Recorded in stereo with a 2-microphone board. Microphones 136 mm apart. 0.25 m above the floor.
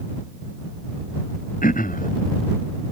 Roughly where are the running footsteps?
I don't hear running footsteps.